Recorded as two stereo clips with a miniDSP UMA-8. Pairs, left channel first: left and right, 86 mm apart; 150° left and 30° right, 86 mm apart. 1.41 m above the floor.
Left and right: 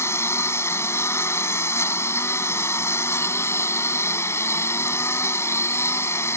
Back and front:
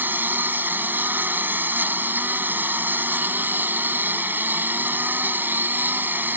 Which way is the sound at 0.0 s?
35° left.